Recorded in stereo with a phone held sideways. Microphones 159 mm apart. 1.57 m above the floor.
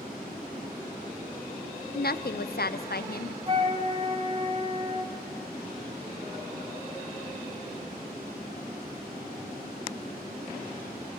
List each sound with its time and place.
1.9 s a woman speaking: 75° left (ahead or behind), 0.6 m
3.5 s a flute: 30° right (ahead or behind), 1.4 m